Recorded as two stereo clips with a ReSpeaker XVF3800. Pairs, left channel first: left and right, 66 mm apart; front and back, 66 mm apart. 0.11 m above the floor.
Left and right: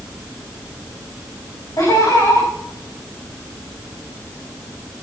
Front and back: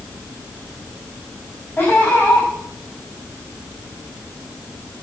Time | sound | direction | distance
1.8 | laughter | 60° left | 7 m